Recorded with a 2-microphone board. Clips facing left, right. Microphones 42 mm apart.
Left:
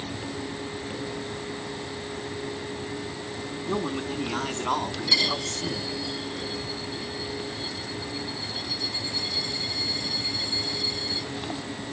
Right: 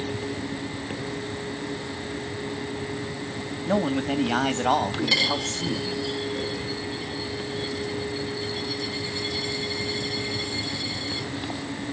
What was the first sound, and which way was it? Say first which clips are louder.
A man speaking: right 6 dB; 70° right (ahead or behind).